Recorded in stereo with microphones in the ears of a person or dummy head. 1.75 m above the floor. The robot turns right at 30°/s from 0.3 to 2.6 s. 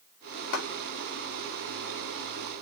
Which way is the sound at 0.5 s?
50° left (ahead or behind).